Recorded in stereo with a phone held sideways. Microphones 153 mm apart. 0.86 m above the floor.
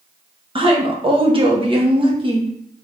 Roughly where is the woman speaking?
Right.